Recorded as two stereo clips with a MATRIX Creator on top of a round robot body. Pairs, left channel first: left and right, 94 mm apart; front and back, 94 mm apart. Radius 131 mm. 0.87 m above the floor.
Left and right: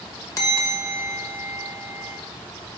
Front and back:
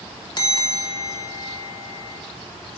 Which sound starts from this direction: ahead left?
A bell, at 0.4 s.